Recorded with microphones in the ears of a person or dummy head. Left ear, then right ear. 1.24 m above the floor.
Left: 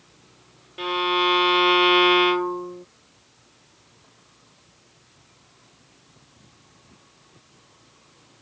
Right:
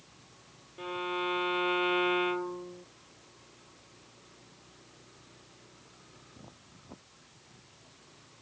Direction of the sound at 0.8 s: 75° left (ahead or behind).